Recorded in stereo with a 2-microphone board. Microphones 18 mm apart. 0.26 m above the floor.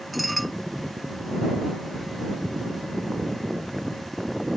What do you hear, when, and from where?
0.1 s dishes clattering: 5° left (ahead or behind)